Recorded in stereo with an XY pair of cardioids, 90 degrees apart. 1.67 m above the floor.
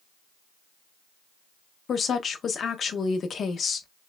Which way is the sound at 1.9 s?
55° left.